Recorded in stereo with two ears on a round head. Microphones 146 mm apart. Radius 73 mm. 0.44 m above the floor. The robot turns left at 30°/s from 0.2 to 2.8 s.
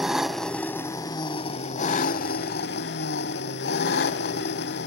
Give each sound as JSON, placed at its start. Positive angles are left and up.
{"t": 0.0, "sound": "an engine running", "azimuth_deg": -175, "distance_m": 1.0}